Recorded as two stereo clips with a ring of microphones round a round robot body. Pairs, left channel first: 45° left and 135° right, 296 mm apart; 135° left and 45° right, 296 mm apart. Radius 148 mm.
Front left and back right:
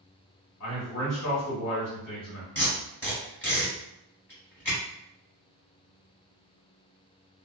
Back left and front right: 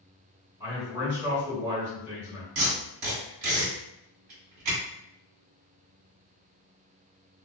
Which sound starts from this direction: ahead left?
A man speaking, at 0.6 s.